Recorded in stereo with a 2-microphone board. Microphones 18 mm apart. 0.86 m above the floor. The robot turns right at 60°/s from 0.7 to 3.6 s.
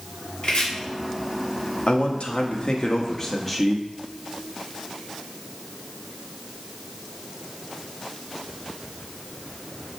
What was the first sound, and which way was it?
Chopping, 50° left (ahead or behind).